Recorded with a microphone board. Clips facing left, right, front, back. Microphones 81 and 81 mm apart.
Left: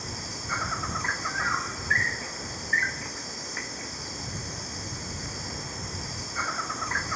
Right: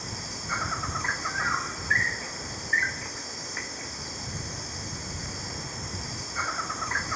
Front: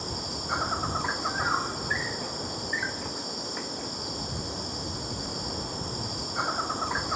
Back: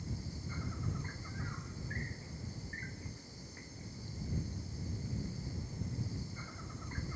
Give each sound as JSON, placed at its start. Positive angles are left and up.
{"t": 0.0, "sound": "an insect", "azimuth_deg": 0}